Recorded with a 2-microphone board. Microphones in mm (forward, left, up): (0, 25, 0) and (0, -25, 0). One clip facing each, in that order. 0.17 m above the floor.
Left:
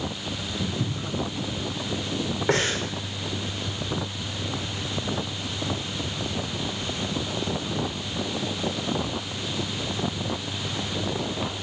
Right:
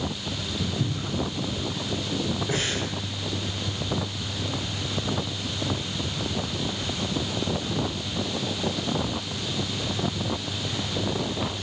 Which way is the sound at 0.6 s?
20° left (ahead or behind).